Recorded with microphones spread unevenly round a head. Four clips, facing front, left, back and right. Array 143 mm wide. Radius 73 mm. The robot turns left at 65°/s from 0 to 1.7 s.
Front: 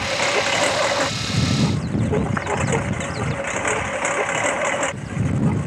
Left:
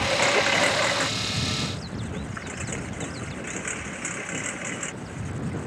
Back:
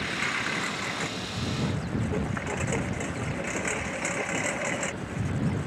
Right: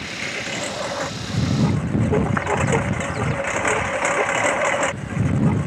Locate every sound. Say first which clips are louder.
0.0 s a lawn mower: left 8 dB, front 10 dB; 55° left; by 5.7 s 55° right